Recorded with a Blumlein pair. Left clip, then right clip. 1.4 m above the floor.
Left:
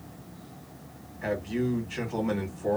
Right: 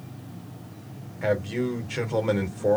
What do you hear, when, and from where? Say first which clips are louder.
1.2 s a man speaking: right 4 dB; 35° right, 1.3 m